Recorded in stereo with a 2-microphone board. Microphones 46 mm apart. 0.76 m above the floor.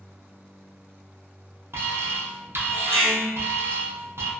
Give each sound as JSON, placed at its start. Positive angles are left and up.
{"t": 1.7, "sound": "an alarm", "side_deg": -65, "distance_m": 0.6}